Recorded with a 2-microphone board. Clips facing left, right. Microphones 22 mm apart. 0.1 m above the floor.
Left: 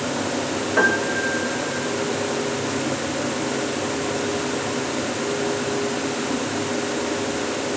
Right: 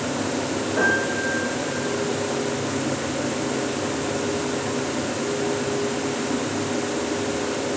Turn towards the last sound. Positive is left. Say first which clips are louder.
# left 2 dB
turn(degrees=50)  # may be behind; listen again after turning